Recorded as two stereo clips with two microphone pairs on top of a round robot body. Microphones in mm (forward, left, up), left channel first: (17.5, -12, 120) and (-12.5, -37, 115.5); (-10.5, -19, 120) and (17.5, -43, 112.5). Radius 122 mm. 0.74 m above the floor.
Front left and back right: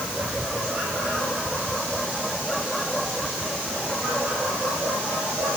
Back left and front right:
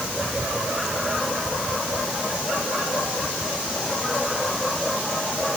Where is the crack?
No crack in this recording.